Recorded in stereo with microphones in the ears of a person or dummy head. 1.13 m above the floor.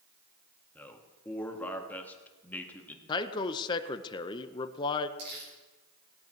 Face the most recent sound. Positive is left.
turn(degrees=-65)  # may be behind; listen again after turning